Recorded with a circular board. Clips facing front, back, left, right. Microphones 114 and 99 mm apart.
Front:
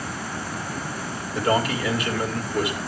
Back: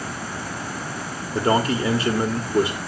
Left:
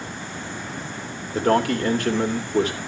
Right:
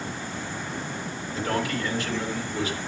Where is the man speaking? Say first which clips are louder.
Back 2 dB, left 8 dB; 125° left, 2.5 m.